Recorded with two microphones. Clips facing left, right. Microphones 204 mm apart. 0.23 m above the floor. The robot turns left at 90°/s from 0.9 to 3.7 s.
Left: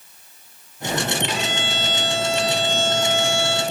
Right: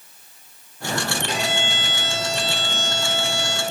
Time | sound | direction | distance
1.3 | a violin | 45° right | 3.5 m